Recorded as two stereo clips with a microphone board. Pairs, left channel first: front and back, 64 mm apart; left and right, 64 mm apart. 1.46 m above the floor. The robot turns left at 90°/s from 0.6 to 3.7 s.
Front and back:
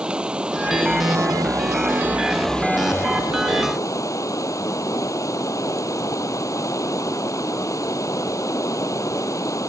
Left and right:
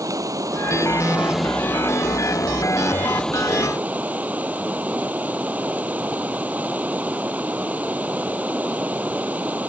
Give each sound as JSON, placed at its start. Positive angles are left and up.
{"t": 0.0, "sound": "running water", "azimuth_deg": -105}